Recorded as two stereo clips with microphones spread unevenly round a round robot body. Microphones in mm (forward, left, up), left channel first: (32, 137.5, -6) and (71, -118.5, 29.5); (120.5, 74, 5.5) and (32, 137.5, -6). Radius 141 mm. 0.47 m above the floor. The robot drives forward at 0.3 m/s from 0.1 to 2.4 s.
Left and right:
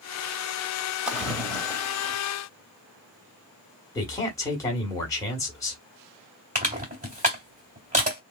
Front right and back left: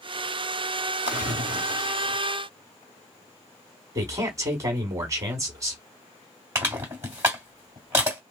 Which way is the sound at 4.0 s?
155° left.